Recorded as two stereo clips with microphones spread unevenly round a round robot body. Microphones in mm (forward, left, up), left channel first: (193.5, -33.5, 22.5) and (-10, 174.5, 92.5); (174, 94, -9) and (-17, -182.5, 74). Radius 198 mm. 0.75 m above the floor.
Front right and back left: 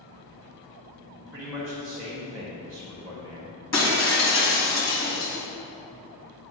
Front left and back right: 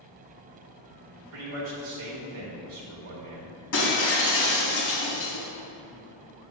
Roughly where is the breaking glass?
Ahead.